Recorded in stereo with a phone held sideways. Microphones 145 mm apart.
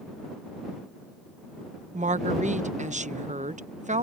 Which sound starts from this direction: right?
A woman speaking, at 1.9 s.